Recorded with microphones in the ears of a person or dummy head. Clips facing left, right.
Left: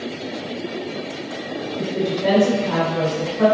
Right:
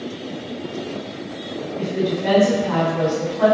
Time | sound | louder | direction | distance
1.8 | a woman speaking | even | 70° left (ahead or behind) | 1.4 m